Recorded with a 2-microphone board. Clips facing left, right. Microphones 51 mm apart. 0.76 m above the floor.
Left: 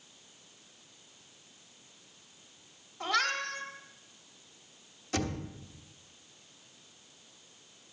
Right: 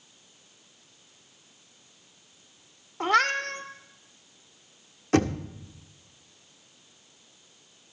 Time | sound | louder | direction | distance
3.0 | a cat meowing | right 7 dB | 55° right (ahead or behind) | 1.0 m
5.1 | knocking | right 10 dB | 55° right (ahead or behind) | 1.1 m